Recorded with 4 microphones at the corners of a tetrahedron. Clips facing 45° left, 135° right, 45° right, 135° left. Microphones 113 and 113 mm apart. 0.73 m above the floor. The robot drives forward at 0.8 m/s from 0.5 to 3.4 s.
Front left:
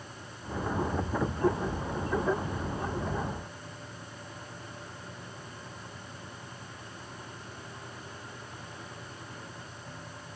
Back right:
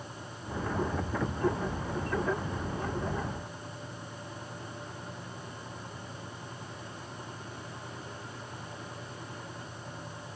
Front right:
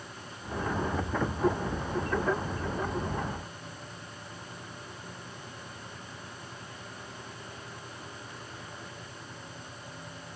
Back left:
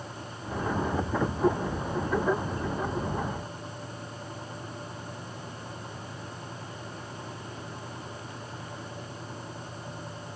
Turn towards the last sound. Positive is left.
No sound to turn to.